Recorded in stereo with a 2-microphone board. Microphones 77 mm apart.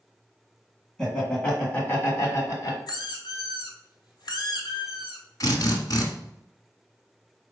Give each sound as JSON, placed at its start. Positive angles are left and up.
{"t": 1.0, "sound": "laughter", "side_deg": 10, "distance_m": 2.0}
{"t": 2.9, "sound": "a squeak", "side_deg": 70, "distance_m": 1.2}
{"t": 5.4, "sound": "a drill", "side_deg": 50, "distance_m": 1.3}